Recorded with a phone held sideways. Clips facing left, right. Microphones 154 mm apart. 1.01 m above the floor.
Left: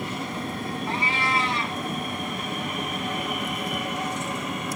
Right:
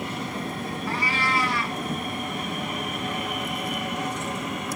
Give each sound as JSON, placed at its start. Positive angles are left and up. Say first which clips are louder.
{"t": 0.9, "sound": "a cat meowing", "louder": "even", "side_deg": 20, "distance_m": 2.5}